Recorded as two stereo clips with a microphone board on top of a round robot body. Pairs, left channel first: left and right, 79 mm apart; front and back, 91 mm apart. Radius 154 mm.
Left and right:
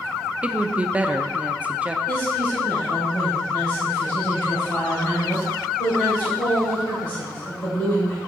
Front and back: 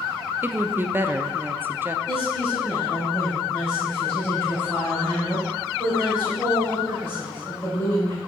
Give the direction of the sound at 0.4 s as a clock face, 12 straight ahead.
5 o'clock.